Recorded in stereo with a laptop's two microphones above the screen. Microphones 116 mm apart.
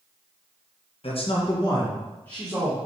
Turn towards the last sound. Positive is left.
turn(degrees=5)  # may be behind; listen again after turning